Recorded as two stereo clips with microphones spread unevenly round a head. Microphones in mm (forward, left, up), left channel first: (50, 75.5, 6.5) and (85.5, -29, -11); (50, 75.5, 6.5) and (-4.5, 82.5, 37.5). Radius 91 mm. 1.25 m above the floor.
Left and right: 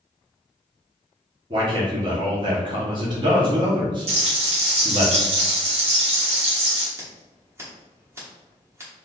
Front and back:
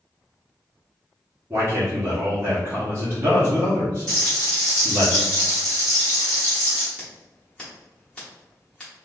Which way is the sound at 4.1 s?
70° right.